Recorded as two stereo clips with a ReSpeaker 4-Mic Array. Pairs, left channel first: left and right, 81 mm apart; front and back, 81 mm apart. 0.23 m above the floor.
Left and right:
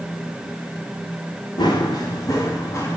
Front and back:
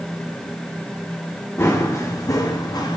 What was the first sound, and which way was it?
Running footsteps, 60° left.